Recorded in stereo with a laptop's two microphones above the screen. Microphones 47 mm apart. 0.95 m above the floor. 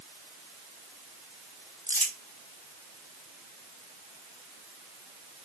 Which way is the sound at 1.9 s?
45° left (ahead or behind).